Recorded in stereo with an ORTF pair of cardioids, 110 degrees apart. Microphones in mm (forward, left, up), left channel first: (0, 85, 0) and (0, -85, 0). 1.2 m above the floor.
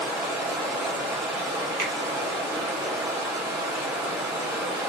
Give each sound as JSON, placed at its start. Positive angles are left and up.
{"t": 0.0, "sound": "running water", "azimuth_deg": -15, "distance_m": 1.6}
{"t": 1.8, "sound": "a finger snap", "azimuth_deg": -70, "distance_m": 1.4}